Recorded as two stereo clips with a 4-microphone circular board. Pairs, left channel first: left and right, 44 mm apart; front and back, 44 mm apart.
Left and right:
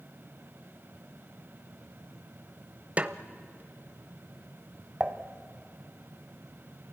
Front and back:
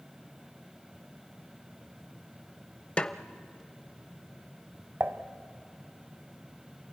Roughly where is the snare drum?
Ahead right.